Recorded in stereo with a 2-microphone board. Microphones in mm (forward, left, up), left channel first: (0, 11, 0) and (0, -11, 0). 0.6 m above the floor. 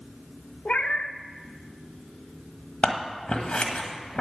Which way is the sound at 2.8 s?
65° left (ahead or behind).